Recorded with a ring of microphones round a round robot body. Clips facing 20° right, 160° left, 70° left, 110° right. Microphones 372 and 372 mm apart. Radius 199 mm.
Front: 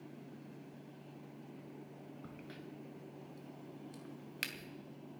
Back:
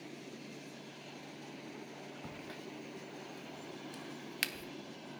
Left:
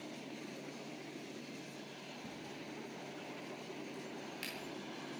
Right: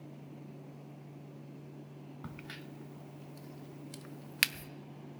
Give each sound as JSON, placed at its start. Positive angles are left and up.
{"t": 2.2, "sound": "a crack", "azimuth_deg": -125, "distance_m": 0.7}